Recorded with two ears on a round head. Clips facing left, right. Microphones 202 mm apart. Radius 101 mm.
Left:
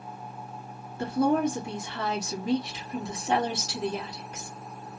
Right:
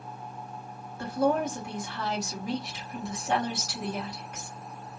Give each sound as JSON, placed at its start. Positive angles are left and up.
{"t": 1.0, "sound": "a woman speaking", "side_deg": 25, "distance_m": 1.4}